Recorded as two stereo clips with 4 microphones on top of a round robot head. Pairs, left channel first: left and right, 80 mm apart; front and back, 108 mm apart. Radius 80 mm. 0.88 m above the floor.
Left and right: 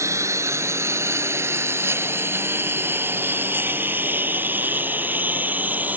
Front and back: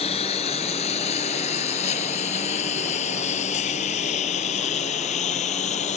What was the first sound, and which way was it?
A lawn mower, 40° right.